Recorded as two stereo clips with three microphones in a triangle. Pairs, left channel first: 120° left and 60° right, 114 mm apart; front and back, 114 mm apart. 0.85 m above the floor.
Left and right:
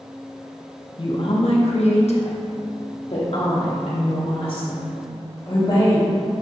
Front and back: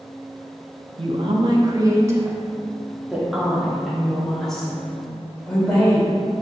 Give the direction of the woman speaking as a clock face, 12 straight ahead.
7 o'clock.